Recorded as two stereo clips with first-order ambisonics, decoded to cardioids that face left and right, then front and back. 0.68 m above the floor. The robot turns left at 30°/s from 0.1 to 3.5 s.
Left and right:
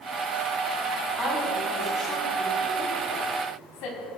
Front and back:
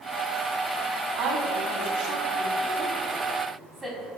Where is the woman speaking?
170° left, 4.5 m; by 4.1 s 100° left, 4.5 m.